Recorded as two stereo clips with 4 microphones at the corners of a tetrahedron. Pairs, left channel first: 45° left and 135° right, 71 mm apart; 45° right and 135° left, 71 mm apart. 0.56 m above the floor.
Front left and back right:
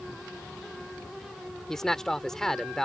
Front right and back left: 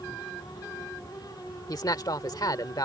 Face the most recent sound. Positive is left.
turn(degrees=-40)